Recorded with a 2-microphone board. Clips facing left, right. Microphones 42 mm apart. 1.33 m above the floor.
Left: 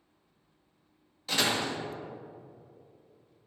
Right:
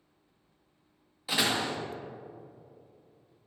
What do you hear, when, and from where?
1.3 s a door slam: 10° right (ahead or behind), 1.2 m